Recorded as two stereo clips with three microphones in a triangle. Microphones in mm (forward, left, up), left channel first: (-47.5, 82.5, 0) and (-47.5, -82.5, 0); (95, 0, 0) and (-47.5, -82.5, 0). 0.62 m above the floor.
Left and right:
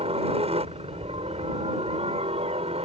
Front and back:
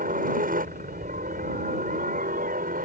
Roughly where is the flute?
I don't hear a flute.